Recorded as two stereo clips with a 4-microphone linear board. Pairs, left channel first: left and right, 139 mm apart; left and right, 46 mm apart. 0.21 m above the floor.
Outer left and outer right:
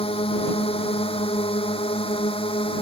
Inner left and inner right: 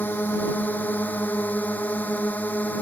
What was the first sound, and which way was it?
A drone, 45° left (ahead or behind).